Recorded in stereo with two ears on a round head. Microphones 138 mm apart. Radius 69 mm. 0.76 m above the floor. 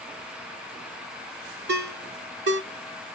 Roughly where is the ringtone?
Right.